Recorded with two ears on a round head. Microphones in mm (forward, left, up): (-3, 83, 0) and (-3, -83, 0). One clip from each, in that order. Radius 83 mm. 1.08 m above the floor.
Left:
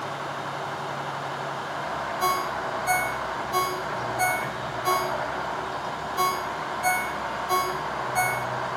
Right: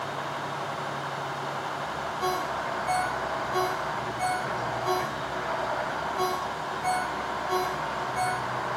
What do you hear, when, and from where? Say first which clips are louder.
2.2 s a ringtone: left 4 dB; 50° left (ahead or behind), 4 m